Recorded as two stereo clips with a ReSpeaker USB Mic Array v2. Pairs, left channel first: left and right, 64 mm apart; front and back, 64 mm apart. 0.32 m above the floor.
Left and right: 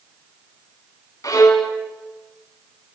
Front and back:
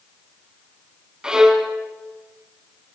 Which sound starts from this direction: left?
A violin, at 1.2 s.